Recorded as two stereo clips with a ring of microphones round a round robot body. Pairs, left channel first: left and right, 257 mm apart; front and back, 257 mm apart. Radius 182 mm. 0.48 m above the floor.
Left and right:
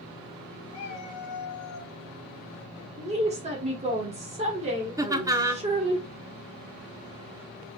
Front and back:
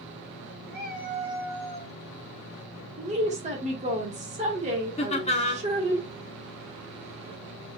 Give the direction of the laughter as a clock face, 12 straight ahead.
1 o'clock.